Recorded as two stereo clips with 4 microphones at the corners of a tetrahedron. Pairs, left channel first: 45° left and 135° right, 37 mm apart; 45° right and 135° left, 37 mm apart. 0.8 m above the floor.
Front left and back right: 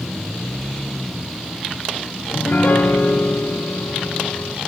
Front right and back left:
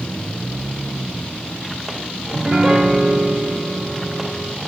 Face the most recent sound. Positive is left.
turn(degrees=60)